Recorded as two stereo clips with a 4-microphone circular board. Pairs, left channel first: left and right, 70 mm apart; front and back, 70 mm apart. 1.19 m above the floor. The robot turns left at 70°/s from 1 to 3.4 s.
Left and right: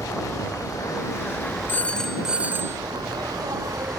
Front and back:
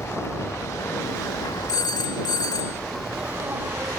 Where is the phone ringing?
30° left; by 2.8 s 45° right.